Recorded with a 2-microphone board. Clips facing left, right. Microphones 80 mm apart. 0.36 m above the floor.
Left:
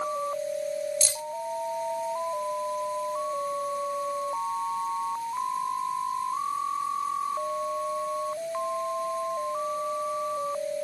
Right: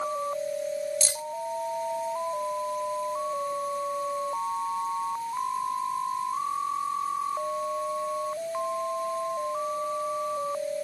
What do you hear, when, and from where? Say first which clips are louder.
1.0 s keys jangling: right 1 dB; 30° right (ahead or behind), 0.7 m